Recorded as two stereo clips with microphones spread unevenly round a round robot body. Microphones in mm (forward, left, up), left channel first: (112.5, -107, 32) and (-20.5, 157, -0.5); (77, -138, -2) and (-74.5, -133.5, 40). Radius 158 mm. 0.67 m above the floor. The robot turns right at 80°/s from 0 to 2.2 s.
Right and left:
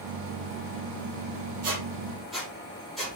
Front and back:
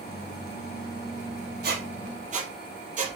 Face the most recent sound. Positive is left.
turn(degrees=-150)